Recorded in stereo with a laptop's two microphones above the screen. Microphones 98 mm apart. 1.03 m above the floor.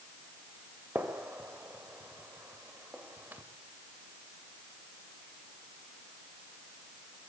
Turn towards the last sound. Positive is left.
turn(degrees=-15)  # may be behind; listen again after turning